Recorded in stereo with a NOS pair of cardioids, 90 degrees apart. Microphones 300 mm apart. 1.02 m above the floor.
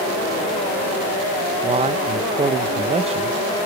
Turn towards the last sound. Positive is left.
turn(degrees=-20)